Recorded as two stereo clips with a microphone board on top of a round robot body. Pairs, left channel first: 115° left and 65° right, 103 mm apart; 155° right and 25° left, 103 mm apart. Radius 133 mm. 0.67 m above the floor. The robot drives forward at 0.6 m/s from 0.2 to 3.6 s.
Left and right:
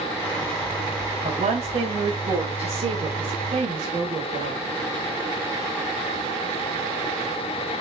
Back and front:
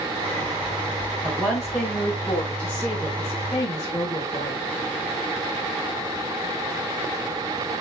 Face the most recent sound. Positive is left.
turn(degrees=-90)